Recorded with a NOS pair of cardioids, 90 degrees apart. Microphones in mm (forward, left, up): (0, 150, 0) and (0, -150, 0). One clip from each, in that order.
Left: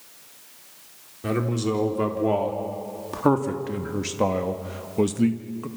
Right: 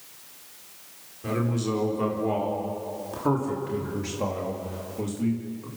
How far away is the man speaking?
About 4 m.